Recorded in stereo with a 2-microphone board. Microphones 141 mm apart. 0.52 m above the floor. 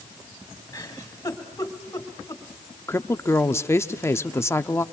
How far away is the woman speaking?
About 0.6 m.